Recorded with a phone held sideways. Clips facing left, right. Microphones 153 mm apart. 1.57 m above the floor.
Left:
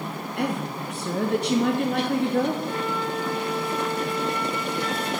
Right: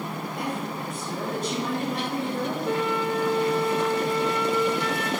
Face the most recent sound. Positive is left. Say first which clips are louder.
# right 3 dB
turn(degrees=-65)  # may be behind; listen again after turning